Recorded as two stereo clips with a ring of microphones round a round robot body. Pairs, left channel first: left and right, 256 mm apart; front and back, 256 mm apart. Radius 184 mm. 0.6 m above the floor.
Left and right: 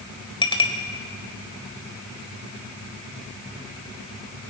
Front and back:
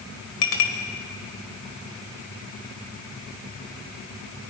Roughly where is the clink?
Ahead.